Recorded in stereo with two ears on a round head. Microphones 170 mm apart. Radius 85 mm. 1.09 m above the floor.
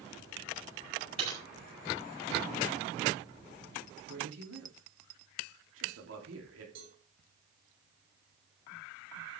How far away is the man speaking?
About 3 m.